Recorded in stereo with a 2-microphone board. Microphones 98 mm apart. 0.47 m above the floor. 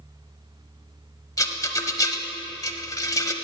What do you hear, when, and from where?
1.4 s a rattle: 35° left (ahead or behind), 0.9 m